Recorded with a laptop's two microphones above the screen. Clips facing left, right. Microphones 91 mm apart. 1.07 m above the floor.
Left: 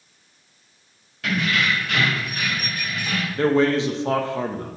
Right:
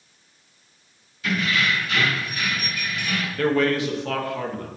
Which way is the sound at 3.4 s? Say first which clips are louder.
Left 3 dB; 25° left (ahead or behind).